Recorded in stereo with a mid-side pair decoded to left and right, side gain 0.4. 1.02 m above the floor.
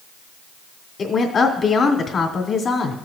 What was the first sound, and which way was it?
A woman speaking, 55° left.